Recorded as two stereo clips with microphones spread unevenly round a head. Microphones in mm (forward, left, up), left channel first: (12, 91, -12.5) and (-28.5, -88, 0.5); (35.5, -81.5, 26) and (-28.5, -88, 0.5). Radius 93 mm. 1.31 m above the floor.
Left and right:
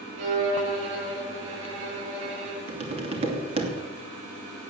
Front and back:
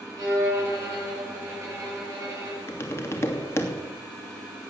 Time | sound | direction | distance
0.2 | a violin | 125° right | 10 m
2.7 | tapping | 40° right | 3 m